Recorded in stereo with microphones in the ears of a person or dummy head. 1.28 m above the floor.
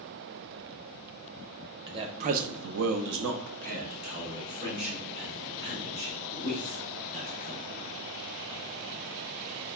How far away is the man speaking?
About 0.8 m.